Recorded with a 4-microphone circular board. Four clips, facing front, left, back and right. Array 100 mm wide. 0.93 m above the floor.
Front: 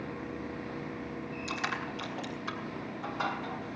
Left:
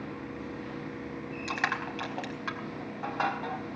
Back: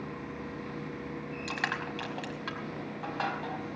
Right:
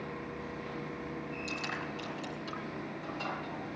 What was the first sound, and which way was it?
Crushing, 110° left.